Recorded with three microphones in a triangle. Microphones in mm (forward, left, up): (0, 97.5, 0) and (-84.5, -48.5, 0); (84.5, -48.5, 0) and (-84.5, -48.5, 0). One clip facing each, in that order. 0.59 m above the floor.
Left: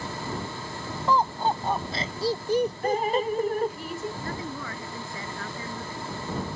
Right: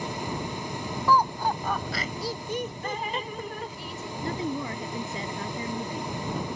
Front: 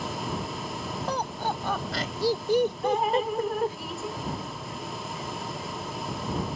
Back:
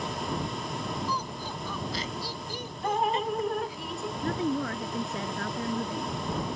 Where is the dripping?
90° left.